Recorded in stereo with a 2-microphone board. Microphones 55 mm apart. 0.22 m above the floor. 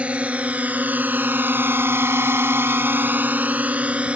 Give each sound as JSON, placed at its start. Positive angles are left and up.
{"t": 0.0, "sound": "a drone", "side_deg": -20}